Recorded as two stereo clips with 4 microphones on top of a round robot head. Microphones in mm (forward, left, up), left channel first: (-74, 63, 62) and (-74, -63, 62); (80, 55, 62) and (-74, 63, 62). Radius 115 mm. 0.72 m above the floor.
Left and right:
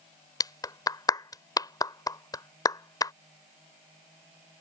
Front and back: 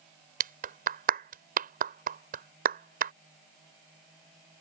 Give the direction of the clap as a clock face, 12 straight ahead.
7 o'clock.